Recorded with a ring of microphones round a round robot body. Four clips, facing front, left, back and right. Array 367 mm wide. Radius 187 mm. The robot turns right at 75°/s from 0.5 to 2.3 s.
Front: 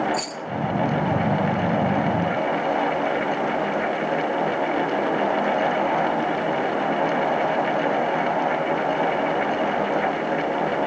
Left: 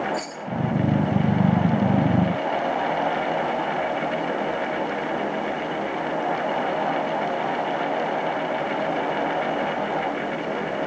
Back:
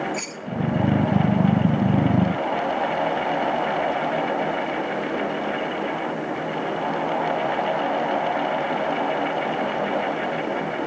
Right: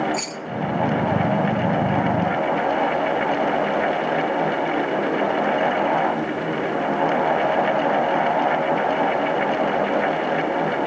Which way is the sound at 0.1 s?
80° right.